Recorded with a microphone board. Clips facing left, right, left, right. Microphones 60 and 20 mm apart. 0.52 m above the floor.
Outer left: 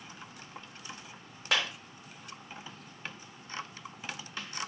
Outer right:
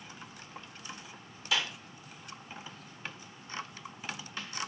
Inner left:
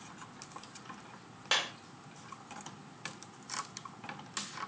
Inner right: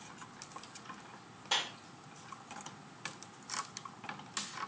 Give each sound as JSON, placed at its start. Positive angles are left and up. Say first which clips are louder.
{"t": 1.5, "sound": "a clap", "louder": "outer left 2 dB, inner left 3 dB", "side_deg": 55, "distance_m": 1.4}